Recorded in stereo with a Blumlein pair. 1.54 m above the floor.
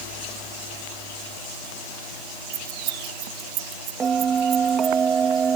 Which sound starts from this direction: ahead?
A bell, at 4.0 s.